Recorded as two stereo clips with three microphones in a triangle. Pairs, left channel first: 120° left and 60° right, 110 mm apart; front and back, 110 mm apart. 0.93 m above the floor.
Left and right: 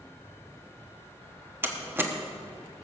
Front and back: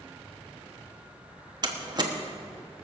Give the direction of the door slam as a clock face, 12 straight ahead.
4 o'clock.